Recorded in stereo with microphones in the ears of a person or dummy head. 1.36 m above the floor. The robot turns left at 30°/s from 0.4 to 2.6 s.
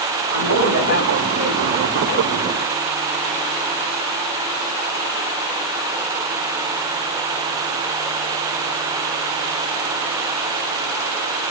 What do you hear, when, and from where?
0.3 s a woman speaking: 110° right, 3.5 m; by 1.9 s 155° right, 3.5 m